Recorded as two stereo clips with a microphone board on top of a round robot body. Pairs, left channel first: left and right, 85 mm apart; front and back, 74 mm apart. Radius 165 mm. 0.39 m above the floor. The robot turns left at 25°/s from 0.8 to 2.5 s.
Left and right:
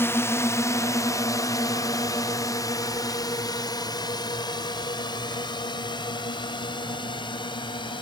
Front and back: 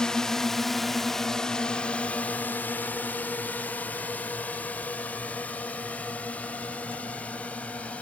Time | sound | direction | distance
0.0 | a drone | 70° left | ?